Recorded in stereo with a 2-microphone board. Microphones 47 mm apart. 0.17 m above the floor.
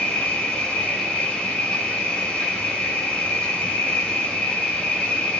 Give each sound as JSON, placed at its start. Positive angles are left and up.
{"t": 0.0, "sound": "an insect", "side_deg": 15, "distance_m": 1.7}